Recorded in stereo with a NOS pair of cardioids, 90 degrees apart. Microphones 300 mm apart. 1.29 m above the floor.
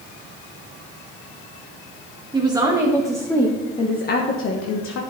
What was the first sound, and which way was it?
A woman speaking, 15° right.